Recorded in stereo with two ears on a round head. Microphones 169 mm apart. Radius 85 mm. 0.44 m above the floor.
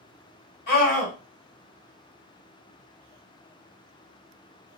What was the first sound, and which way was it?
A scream, 50° left (ahead or behind).